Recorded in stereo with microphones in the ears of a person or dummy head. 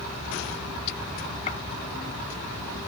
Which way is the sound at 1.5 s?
30° left (ahead or behind).